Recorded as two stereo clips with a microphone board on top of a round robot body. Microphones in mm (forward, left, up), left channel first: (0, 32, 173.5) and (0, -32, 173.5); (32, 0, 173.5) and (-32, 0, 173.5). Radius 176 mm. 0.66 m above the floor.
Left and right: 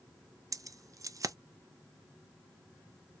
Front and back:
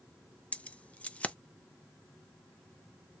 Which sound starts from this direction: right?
Keys jangling, at 0.5 s.